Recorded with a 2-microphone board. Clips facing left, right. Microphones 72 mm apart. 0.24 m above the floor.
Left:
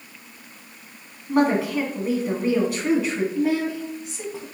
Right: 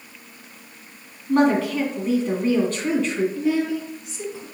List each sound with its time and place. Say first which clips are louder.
1.3 s a woman speaking: right 2 dB; 10° left (ahead or behind), 2 m
3.4 s a woman speaking: right 1 dB; 40° left (ahead or behind), 1.8 m